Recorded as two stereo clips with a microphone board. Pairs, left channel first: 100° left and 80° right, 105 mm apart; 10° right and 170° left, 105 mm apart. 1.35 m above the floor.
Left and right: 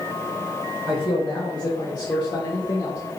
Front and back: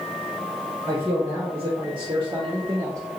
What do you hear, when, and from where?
0.9 s a man speaking: 145° left, 1.5 m; by 3.0 s 130° left, 0.5 m